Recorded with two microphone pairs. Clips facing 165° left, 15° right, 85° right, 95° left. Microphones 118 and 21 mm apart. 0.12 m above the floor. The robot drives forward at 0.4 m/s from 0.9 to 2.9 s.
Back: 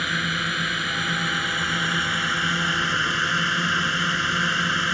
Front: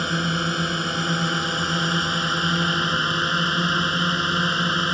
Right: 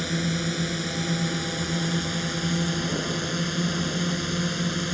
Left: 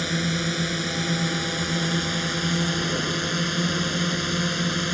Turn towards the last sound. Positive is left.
turn(degrees=40)